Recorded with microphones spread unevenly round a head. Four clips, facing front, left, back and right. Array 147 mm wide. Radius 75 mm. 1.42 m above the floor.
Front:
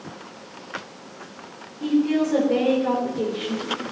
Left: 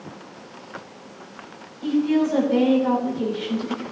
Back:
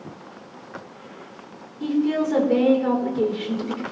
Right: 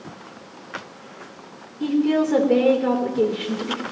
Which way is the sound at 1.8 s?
110° right.